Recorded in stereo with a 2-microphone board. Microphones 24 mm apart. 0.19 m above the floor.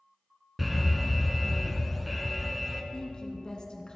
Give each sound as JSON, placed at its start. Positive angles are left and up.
{"t": 0.6, "sound": "an alarm", "side_deg": -5, "distance_m": 1.1}
{"t": 2.9, "sound": "a woman speaking", "side_deg": 35, "distance_m": 1.7}